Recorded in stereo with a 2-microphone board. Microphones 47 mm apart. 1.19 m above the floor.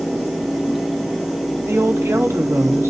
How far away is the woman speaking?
About 2.5 m.